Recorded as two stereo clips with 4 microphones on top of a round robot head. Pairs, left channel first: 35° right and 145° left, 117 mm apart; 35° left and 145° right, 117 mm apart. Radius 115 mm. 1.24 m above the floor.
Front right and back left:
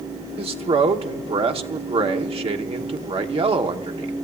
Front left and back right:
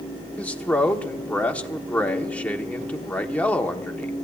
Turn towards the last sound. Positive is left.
turn(degrees=110)